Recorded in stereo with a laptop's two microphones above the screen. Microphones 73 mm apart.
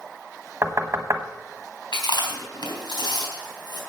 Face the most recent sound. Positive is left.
turn(degrees=70)  # may be behind; listen again after turning